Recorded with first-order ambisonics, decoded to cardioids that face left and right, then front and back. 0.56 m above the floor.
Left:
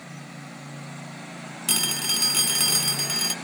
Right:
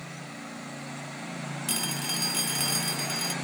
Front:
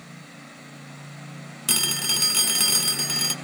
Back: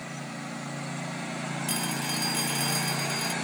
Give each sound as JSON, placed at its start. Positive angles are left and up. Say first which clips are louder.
{"t": 1.7, "sound": "a phone ringing", "louder": "left 7 dB, front 9 dB", "azimuth_deg": 40, "distance_m": 0.6}